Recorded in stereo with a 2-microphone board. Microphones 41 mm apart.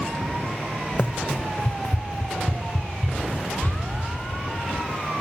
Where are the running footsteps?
45° left (ahead or behind), 0.6 m; by 4.1 s 40° left (ahead or behind), 2.5 m.